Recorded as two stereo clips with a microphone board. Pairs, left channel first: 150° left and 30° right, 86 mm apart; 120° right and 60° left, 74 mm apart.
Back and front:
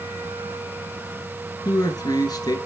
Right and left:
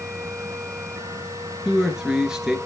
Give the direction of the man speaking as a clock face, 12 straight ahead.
7 o'clock.